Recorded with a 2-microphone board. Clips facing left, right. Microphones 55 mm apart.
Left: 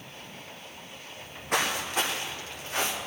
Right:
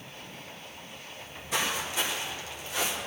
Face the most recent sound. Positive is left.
turn(degrees=45)  # may be behind; listen again after turning